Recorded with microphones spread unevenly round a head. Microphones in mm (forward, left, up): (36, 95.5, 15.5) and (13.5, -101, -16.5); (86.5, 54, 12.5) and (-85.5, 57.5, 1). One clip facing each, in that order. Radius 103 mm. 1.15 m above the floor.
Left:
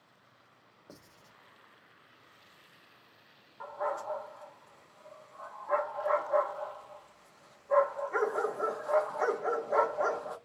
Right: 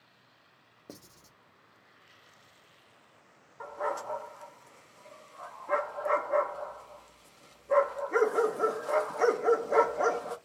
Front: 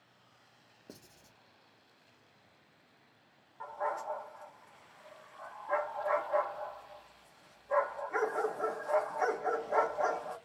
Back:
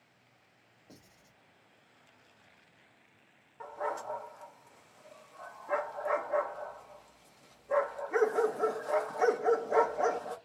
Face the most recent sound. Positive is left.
turn(degrees=-140)